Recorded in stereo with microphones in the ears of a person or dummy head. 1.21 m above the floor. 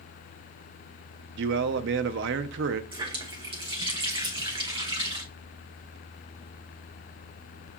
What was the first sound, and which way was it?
A man speaking, 65° right (ahead or behind).